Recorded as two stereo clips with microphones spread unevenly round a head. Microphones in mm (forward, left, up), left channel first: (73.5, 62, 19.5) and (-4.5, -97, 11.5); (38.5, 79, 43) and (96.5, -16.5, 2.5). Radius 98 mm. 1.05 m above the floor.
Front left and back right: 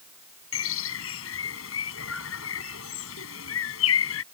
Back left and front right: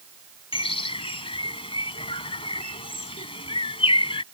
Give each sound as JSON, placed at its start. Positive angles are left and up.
{"t": 0.5, "sound": "a bird", "azimuth_deg": 85}